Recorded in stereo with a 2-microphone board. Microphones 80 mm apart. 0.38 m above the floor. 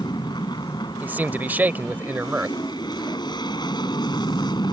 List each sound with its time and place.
0.0 s an aircraft: 65° left (ahead or behind)
1.0 s a man speaking: 25° right (ahead or behind)